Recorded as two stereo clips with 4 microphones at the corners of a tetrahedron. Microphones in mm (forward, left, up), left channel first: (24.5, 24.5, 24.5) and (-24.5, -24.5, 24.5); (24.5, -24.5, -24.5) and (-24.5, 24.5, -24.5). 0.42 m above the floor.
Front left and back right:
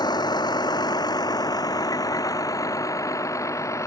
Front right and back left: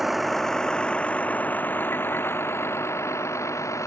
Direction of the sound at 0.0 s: 50° left.